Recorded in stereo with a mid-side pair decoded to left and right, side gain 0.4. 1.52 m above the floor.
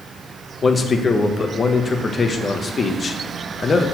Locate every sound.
0.6 s a man speaking: 35° left, 1.3 m